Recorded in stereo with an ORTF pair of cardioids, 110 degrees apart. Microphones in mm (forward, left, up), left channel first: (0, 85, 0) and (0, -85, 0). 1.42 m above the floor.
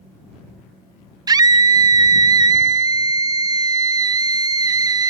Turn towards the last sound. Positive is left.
turn(degrees=-20)